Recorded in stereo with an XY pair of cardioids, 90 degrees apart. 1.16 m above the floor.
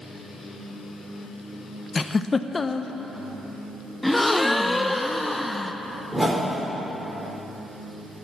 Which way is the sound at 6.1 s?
20° right.